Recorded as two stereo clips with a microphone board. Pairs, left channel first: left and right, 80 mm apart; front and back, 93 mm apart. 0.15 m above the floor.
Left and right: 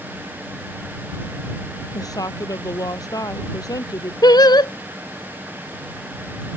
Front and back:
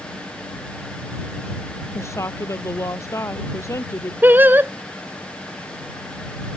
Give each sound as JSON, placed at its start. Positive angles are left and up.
{"t": 1.9, "sound": "a woman speaking", "azimuth_deg": 55}
{"t": 4.2, "sound": "singing", "azimuth_deg": 110}